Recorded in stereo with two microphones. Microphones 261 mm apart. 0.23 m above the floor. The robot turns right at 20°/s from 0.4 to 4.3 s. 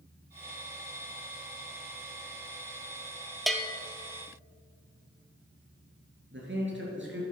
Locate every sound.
3.5 s a bell: centre (ahead or behind), 0.9 m; by 3.7 s 5° left (ahead or behind), 0.9 m
6.3 s a man speaking: 45° right (ahead or behind), 4 m